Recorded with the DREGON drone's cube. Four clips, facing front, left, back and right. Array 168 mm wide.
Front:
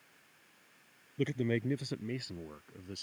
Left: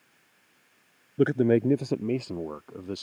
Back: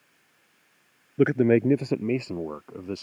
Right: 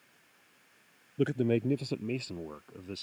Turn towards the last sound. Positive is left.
turn(degrees=150)